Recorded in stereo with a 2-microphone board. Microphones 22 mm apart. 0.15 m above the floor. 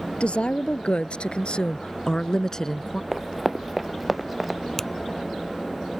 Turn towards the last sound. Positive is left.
turn(degrees=15)  # may be behind; listen again after turning